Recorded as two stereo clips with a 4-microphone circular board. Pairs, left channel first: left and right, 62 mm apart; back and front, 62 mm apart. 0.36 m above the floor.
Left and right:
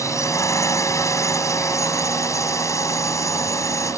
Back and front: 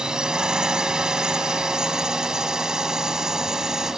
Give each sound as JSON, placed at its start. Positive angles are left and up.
{"t": 0.0, "sound": "a drone", "azimuth_deg": 75}